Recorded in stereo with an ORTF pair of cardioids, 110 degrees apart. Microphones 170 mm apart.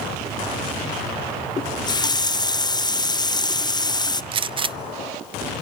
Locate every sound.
1.6 s a running tap: 25° left, 0.6 m
4.3 s a gunshot: 30° right, 0.5 m